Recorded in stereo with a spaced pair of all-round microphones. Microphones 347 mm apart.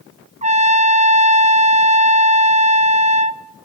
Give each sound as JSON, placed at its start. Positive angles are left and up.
{"t": 0.4, "sound": "a trumpet", "side_deg": -20, "distance_m": 0.6}